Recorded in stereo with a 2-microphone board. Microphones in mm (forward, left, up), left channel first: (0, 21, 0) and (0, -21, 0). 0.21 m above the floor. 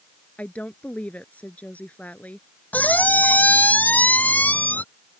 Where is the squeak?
45° left (ahead or behind).